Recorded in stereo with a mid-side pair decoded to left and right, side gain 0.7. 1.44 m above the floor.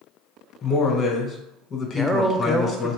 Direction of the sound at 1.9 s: Straight ahead.